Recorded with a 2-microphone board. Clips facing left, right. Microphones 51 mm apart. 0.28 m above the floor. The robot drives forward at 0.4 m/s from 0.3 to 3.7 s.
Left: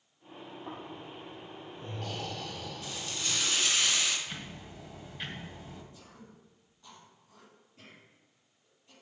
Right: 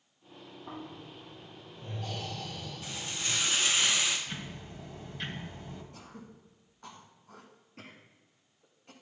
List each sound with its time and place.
0.7 s snoring: 60° left (ahead or behind), 3 m; by 3.4 s 80° left, 2.5 m
2.8 s frying: 30° right (ahead or behind), 1.3 m; by 4.2 s 25° right (ahead or behind), 1.6 m
4.3 s ticking: 5° left (ahead or behind), 1.7 m
5.9 s throat clearing: 70° right (ahead or behind), 1.2 m